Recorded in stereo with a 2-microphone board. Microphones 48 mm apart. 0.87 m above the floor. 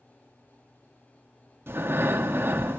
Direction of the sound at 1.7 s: 55° right (ahead or behind).